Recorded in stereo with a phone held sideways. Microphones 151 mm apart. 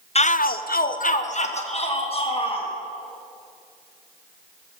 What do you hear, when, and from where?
0.1 s a shout: 45° left (ahead or behind), 0.7 m; by 2.7 s 35° left (ahead or behind), 3 m